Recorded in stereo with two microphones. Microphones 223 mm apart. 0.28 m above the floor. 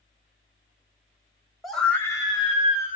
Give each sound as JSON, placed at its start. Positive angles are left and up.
{"t": 1.6, "sound": "a scream", "side_deg": 0, "distance_m": 1.0}